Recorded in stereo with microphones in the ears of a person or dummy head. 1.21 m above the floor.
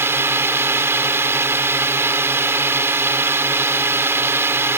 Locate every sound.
0.0 s a drone: 10° right (ahead or behind)